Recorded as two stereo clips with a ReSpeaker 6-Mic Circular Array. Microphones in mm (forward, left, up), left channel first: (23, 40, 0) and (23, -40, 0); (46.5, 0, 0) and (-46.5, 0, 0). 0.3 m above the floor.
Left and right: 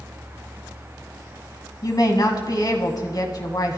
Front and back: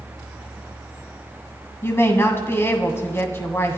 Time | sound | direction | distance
1.8 | a woman speaking | 60° left | 2 m